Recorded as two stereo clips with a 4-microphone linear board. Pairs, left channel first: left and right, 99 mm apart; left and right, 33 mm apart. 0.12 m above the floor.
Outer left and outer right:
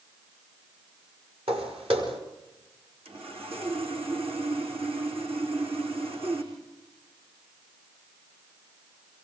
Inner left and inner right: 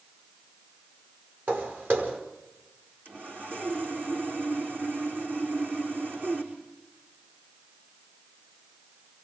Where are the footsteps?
75° right (ahead or behind), 5.5 m.